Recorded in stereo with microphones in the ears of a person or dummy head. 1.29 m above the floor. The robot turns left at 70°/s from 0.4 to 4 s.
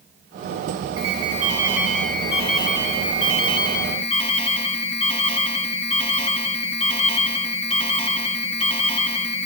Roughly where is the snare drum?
No snare drum in this recording.